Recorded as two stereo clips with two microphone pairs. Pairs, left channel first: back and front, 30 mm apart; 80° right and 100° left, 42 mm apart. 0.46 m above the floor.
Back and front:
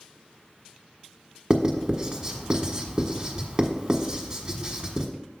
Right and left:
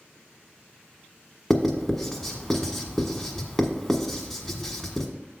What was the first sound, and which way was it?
Writing, 10° right.